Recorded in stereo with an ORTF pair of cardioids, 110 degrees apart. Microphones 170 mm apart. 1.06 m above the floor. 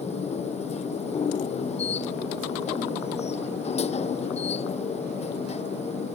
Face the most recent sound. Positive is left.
turn(degrees=40)